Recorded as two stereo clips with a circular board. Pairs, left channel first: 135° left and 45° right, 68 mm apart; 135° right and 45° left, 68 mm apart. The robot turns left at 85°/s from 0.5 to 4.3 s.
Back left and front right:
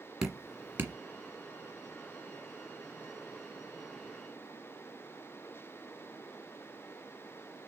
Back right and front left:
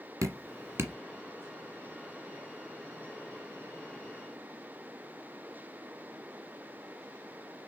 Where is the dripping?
35° left, 1.5 m; by 0.9 s 5° right, 1.5 m.